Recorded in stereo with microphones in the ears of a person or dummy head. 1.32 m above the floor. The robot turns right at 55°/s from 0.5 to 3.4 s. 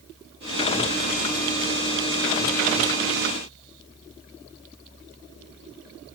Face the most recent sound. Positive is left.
No sound to turn to.